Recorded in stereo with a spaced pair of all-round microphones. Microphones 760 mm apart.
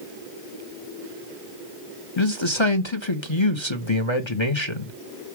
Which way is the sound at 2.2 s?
35° left (ahead or behind).